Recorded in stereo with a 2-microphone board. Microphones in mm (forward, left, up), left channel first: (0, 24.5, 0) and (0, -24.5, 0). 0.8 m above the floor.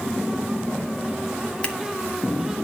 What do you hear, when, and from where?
1.6 s scissors: 25° left (ahead or behind), 1.5 m